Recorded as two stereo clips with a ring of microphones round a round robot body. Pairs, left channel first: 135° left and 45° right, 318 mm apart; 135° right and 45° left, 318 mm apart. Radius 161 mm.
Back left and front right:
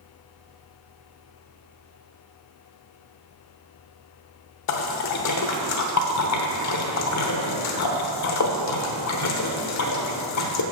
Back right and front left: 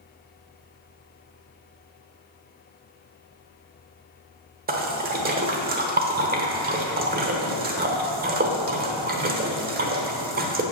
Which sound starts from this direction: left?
A splash, at 4.7 s.